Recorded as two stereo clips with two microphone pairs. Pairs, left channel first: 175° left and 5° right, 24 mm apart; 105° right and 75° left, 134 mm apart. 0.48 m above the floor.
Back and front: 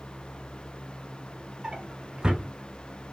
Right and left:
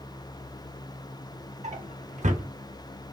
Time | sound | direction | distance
1.6 | a drawer | 50° left | 0.8 m